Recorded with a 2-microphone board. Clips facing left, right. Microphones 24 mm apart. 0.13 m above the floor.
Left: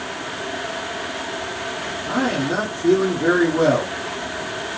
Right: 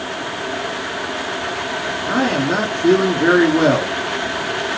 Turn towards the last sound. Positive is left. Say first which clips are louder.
# right 3 dB
turn(degrees=-35)  # may be behind; listen again after turning